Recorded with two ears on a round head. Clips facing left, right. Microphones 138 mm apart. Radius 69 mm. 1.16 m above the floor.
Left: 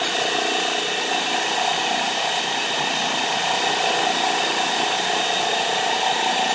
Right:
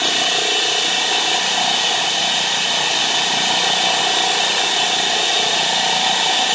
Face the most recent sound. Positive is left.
turn(degrees=-60)  # may be behind; listen again after turning